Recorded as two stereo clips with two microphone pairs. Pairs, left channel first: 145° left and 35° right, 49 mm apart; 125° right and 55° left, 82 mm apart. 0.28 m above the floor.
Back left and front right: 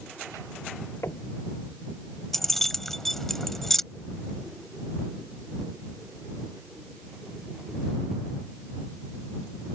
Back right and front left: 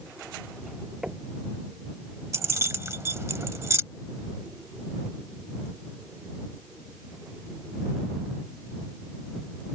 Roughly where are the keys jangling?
Left.